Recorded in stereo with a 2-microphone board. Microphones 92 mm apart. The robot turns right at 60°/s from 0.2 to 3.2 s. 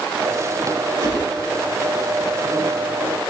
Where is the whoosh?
60° right (ahead or behind), 7 m; by 1.2 s 70° right (ahead or behind), 7 m.